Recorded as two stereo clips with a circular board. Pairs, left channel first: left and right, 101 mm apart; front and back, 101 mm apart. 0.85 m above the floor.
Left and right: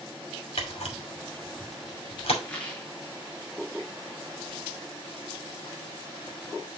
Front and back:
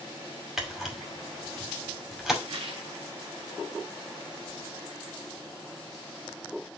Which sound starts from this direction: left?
A camera shutter, at 0.6 s.